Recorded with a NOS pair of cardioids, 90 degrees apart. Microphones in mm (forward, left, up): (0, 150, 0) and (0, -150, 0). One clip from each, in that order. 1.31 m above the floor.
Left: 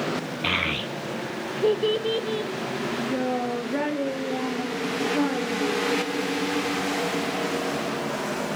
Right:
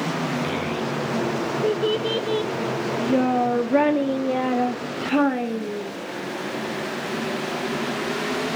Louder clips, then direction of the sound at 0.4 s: Left 1 dB; 65° left.